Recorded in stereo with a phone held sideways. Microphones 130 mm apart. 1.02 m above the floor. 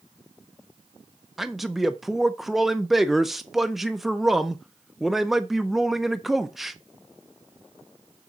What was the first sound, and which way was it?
A man speaking, centre (ahead or behind).